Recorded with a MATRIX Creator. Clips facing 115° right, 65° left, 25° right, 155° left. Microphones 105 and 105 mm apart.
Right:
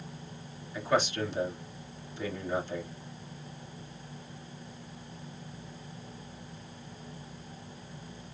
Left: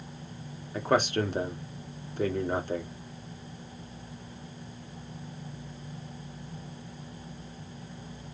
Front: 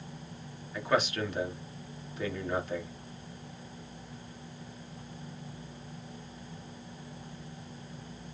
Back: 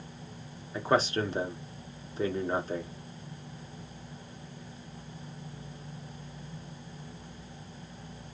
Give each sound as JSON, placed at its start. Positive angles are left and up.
{"t": 0.7, "sound": "a man speaking", "azimuth_deg": 100, "distance_m": 1.4}